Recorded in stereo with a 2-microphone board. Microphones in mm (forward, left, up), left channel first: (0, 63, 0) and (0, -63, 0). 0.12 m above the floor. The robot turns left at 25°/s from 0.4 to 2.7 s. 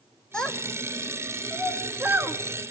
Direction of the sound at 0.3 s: 5° left (ahead or behind).